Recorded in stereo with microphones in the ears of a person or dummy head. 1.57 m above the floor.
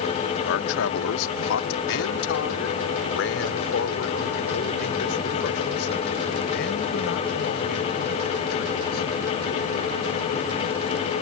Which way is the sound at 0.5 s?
75° left (ahead or behind).